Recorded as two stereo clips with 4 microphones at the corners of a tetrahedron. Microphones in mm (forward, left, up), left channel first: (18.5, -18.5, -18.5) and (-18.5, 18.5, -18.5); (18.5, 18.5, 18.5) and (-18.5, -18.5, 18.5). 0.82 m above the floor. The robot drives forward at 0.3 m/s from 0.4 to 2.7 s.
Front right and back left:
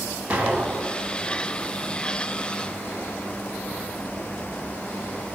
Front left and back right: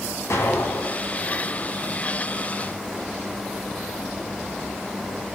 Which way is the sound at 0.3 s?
70° left.